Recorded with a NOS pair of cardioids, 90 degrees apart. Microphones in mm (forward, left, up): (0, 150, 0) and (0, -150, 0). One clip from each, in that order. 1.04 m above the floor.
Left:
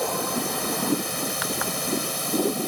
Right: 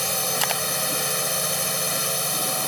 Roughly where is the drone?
Ahead right.